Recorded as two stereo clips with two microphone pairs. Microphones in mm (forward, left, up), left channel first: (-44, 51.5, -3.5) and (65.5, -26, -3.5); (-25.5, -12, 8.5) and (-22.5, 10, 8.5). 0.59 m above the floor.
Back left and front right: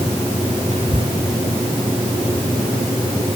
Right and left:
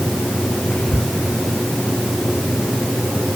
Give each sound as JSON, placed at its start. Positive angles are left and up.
{"t": 0.7, "sound": "whispering", "azimuth_deg": -80}